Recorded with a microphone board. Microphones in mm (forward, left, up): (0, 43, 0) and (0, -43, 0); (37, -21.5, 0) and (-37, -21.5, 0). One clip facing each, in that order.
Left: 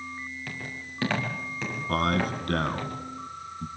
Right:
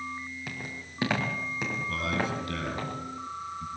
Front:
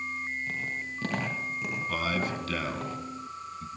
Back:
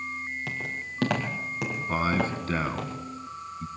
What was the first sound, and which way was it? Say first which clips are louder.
Footsteps: left 1 dB, even; 170° right.